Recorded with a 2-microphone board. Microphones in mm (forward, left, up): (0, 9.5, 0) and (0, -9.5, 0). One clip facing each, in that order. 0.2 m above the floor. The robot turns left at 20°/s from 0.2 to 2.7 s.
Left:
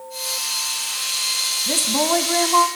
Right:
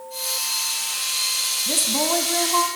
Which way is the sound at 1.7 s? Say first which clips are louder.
Left 3 dB; 20° left (ahead or behind).